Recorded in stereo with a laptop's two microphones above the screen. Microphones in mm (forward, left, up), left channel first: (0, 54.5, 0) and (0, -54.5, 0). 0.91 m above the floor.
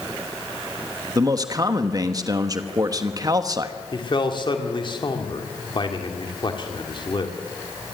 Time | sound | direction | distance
1.1 | a man speaking | 35° right (ahead or behind) | 1.1 m
3.9 | a man speaking | 45° left (ahead or behind) | 2 m